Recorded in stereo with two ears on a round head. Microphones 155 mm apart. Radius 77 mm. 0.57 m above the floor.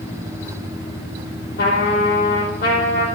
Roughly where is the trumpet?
Left.